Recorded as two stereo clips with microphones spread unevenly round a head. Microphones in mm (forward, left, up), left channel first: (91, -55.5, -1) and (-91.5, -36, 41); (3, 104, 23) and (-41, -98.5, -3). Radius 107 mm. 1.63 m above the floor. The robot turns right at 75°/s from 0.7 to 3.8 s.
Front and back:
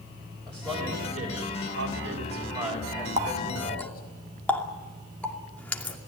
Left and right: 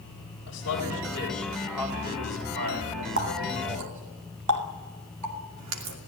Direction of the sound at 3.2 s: 140° right.